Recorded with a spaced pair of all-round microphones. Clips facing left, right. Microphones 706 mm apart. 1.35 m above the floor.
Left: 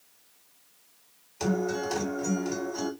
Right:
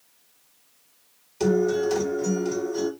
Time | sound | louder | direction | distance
1.4 | a guitar | right 8 dB | 60° right (ahead or behind) | 2 m